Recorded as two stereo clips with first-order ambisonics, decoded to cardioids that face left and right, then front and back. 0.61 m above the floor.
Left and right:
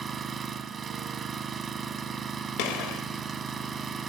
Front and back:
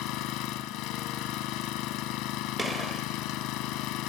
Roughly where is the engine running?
Ahead.